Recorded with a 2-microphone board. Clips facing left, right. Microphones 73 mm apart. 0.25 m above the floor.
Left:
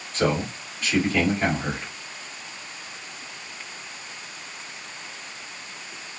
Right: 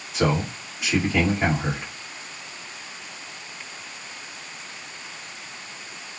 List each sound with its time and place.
0.1 s a man speaking: 10° right (ahead or behind), 1.5 m